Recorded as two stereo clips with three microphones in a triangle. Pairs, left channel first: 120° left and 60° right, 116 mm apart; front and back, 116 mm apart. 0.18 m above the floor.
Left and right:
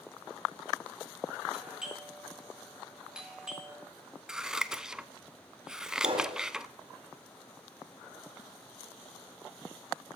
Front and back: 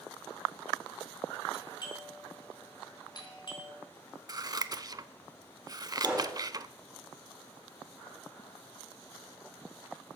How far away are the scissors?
About 0.5 m.